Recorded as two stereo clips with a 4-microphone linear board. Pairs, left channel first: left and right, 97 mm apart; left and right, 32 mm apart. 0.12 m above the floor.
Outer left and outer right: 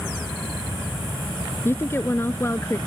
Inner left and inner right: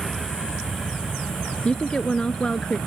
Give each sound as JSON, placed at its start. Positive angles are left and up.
{"t": 1.6, "sound": "a woman speaking", "side_deg": 25}